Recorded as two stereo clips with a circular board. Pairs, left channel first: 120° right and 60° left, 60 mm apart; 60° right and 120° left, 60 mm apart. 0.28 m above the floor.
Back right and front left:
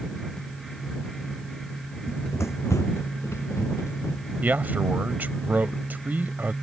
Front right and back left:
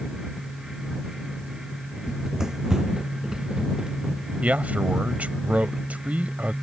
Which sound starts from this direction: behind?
Running footsteps, at 2.1 s.